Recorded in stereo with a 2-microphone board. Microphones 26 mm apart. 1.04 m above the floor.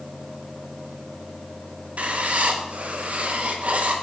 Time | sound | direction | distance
2.0 | writing | 60° right (ahead or behind) | 0.8 m